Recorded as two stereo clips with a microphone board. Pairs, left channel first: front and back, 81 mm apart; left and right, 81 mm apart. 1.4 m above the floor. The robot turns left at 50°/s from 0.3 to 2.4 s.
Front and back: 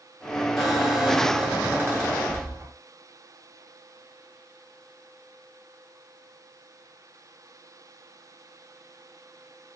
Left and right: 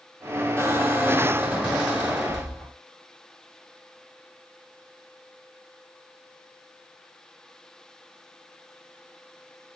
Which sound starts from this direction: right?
A squeak, at 0.6 s.